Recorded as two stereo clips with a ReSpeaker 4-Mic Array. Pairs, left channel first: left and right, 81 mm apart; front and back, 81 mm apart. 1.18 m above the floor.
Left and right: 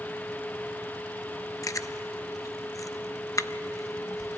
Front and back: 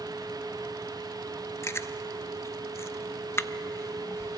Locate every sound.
1.6 s chewing: 50° left, 0.5 m